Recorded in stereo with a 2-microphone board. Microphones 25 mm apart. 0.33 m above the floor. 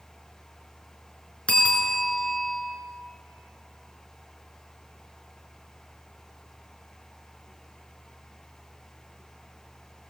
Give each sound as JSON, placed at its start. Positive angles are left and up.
{"t": 1.5, "sound": "a bell", "side_deg": 55, "distance_m": 4.5}